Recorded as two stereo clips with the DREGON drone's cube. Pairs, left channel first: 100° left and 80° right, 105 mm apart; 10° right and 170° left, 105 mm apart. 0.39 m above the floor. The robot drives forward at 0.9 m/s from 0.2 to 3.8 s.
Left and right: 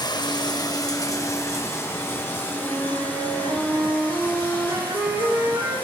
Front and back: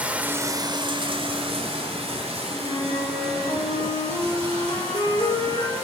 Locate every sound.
0.0 s running water: 100° left, 0.7 m; by 5.8 s 170° left, 3.5 m
2.5 s a flute: 30° right, 6.5 m; by 5.8 s 35° right, 5.5 m